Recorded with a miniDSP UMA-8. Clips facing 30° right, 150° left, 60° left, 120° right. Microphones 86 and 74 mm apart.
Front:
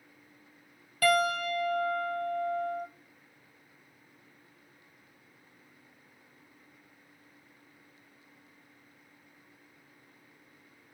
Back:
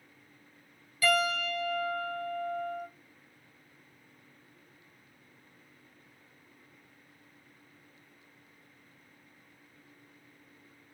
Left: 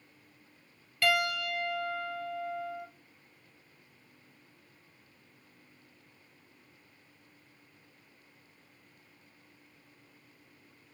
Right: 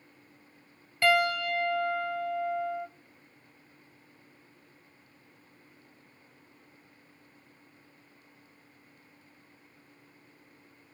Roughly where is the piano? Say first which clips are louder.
Front 2 dB, right 4 dB; ahead right.